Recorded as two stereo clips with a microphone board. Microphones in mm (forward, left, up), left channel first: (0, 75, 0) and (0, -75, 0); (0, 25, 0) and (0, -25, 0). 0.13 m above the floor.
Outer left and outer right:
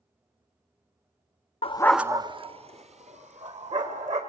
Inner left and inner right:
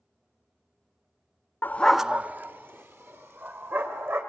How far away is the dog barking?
About 0.6 m.